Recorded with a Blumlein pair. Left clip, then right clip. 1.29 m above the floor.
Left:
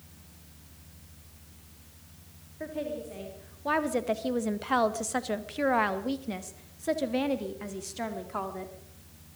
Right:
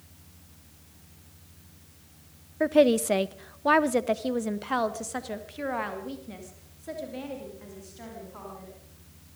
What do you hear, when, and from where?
2.6 s a woman speaking: 55° right, 1.0 m; by 8.7 s 35° left, 3 m